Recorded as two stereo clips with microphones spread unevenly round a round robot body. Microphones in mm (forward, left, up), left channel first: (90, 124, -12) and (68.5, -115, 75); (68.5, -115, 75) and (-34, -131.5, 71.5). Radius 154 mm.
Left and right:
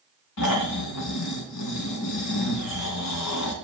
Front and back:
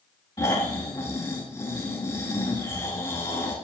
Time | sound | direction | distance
0.4 | snoring | 80° left | 2.5 m